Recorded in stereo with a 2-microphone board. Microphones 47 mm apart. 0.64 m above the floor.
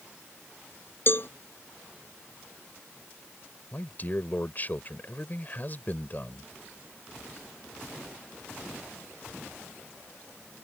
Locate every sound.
1.1 s a cowbell: 50° left (ahead or behind)
3.7 s a man speaking: 40° left (ahead or behind)